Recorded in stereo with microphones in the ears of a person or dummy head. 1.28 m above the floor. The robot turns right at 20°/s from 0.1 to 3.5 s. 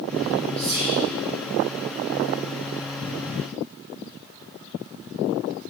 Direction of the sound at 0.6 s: 35° left (ahead or behind).